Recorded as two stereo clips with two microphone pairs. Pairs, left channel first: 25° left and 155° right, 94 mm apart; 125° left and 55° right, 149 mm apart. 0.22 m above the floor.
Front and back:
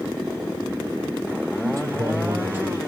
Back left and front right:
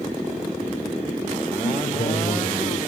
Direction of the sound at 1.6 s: 155° left.